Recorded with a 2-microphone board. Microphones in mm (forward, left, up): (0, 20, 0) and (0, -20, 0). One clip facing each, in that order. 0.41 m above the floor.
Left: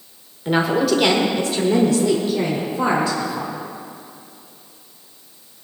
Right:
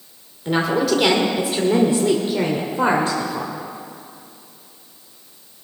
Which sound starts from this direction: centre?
A woman speaking, at 0.5 s.